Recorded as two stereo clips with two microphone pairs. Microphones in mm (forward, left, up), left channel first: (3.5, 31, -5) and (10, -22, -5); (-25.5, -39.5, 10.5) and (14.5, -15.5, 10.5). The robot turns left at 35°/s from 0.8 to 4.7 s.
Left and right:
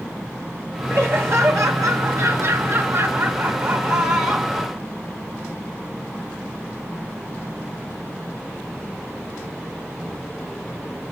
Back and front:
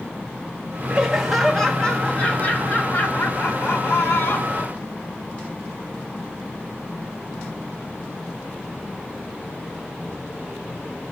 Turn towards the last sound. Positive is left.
turn(degrees=-175)